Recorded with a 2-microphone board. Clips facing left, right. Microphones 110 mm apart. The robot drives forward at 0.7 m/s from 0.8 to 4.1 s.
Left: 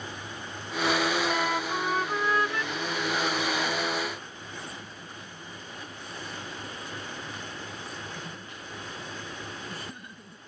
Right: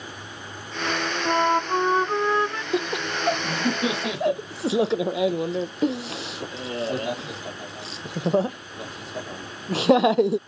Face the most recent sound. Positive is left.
turn(degrees=-80)